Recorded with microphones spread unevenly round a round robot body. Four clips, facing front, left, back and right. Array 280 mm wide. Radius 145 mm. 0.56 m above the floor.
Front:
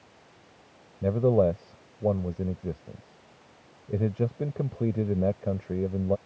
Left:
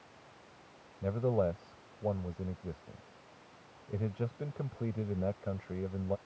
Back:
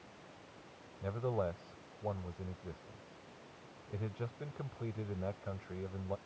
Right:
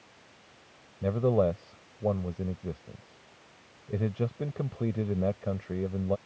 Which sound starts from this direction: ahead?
A man speaking, at 1.0 s.